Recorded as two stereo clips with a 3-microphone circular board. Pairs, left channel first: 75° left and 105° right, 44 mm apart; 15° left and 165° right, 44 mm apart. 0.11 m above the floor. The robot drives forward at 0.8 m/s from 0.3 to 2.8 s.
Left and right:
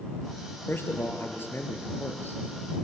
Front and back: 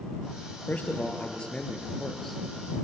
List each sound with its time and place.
0.7 s a man speaking: 65° left, 2.5 m; by 2.4 s 105° left, 2.5 m